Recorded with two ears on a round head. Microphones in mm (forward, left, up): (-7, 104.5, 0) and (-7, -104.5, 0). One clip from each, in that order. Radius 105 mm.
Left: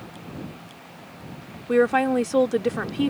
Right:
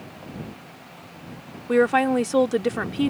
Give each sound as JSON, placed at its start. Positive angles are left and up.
{"t": 1.7, "sound": "a woman speaking", "side_deg": -10}